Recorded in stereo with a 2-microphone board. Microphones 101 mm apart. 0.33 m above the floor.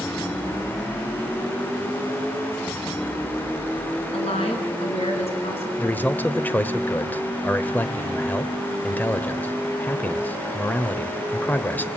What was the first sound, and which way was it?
A woman speaking, 75° left (ahead or behind).